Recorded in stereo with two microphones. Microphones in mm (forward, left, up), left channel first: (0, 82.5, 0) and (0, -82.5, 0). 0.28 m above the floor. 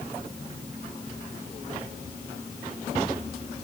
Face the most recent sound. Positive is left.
No sound to turn to.